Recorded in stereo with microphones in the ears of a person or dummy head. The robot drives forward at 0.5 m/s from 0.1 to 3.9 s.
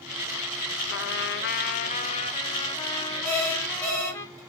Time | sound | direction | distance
0.9 | a trumpet | 55° left (ahead or behind) | 0.5 m
3.2 | an alarm clock | 20° right (ahead or behind) | 4 m